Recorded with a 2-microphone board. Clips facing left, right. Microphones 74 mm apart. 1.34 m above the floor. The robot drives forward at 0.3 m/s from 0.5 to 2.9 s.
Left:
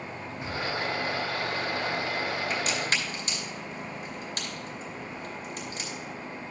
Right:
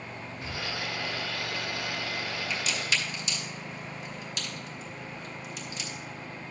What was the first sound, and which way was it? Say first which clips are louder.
A drawer: left 4 dB; 20° left (ahead or behind).